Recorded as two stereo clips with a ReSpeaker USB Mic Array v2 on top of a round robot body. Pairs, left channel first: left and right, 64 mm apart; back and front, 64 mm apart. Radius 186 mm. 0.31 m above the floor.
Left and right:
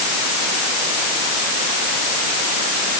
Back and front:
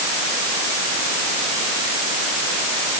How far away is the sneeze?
I don't hear a sneeze.